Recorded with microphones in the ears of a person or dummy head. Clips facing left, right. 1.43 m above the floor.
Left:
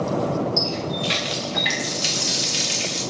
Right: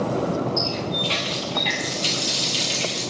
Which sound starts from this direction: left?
A running tap, at 0.6 s.